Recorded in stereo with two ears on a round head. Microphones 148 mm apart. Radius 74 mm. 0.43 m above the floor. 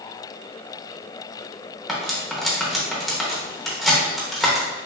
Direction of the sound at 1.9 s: Centre (ahead or behind).